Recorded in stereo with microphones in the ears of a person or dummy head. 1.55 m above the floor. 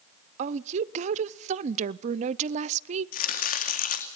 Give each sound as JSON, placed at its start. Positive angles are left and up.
{"t": 0.4, "sound": "a woman speaking", "side_deg": -50, "distance_m": 0.5}
{"t": 3.1, "sound": "chopping", "side_deg": 55, "distance_m": 1.8}